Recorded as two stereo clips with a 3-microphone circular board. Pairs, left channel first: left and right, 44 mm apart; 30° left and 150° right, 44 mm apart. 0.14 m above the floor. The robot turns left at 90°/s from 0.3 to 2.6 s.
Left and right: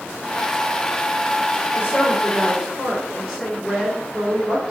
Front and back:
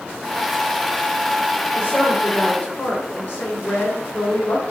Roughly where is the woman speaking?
Ahead left.